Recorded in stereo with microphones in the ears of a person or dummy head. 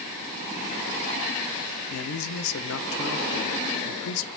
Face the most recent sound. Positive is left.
turn(degrees=85)